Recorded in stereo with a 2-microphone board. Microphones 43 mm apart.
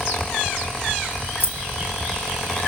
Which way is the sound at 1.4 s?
50° left (ahead or behind).